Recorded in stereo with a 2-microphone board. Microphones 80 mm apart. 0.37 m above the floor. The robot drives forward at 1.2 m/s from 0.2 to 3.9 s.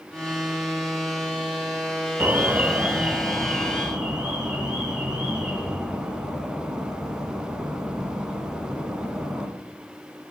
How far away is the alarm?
About 0.6 m.